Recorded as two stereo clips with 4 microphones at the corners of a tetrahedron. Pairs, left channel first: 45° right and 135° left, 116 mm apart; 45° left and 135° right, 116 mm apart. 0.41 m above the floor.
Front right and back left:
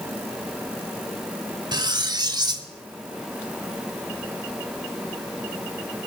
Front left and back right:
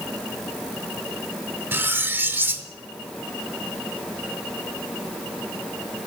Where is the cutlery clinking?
160° left, 0.7 m.